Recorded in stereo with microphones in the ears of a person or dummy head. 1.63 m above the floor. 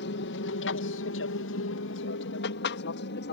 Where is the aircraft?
55° left (ahead or behind); by 3.3 s 60° left (ahead or behind).